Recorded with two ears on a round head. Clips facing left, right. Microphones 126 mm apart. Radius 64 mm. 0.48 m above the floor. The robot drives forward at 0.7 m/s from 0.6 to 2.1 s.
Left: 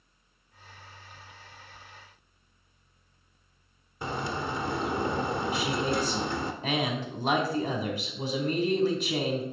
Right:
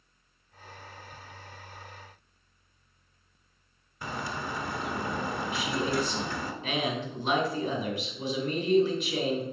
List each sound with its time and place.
4.0 s a bird: 25° left (ahead or behind), 1.0 m
5.5 s a man speaking: 35° left (ahead or behind), 2 m